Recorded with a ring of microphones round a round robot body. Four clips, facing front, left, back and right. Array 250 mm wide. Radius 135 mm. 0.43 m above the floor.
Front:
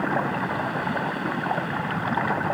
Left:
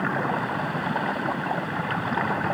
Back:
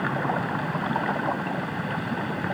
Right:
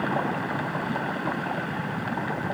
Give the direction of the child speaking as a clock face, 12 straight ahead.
No child speaking in this recording.